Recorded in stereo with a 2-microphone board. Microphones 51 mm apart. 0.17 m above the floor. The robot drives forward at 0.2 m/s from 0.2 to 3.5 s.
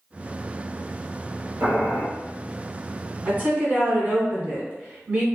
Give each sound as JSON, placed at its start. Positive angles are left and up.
{"t": 1.6, "sound": "boiling", "side_deg": -65, "distance_m": 1.1}
{"t": 3.2, "sound": "a woman speaking", "side_deg": -30, "distance_m": 1.1}